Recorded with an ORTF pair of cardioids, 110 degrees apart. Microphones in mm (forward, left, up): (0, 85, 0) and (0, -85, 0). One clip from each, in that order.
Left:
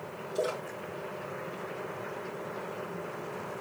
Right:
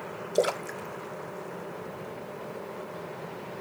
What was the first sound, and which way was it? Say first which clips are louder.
A splash: right 6 dB; 70° right.